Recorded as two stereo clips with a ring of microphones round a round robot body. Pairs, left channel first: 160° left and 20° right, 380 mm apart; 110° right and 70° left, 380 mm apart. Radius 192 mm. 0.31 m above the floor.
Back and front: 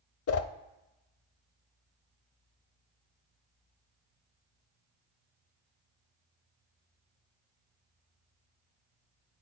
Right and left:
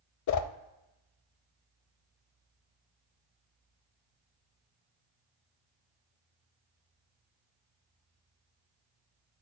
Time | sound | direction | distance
0.3 | a whoosh | 155° right | 0.6 m